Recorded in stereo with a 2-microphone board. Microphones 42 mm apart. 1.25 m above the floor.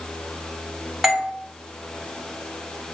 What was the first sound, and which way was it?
A doorbell, 10° right (ahead or behind).